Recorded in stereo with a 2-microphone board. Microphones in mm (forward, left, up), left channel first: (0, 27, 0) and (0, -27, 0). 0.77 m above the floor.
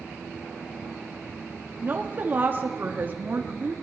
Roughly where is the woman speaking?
Right.